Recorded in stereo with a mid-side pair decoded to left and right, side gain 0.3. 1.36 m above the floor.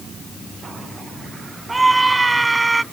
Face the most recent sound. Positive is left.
turn(degrees=-25)